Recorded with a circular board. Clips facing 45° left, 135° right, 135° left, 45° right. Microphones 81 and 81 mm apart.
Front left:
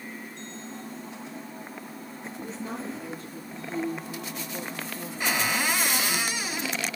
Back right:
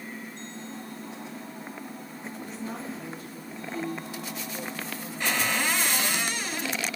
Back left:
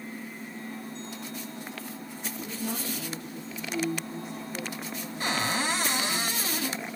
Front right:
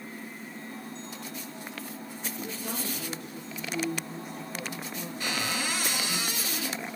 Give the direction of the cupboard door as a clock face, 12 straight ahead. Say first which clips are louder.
Front left 1 dB, back left 4 dB; 8 o'clock.